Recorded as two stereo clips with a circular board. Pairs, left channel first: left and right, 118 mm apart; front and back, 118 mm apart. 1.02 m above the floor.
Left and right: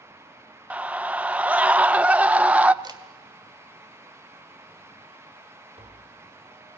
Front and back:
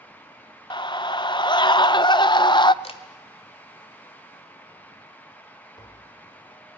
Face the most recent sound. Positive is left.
turn(degrees=-55)